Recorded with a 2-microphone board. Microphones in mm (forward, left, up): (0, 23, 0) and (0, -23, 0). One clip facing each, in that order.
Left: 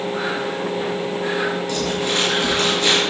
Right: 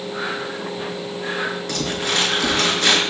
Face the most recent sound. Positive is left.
turn(degrees=-60)  # may be behind; listen again after turning